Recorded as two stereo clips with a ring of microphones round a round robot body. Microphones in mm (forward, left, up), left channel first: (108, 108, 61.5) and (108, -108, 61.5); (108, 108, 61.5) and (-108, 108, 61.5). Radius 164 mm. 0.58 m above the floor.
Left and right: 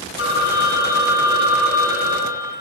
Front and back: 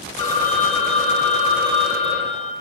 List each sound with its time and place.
0.2 s a phone ringing: 65° left, 2 m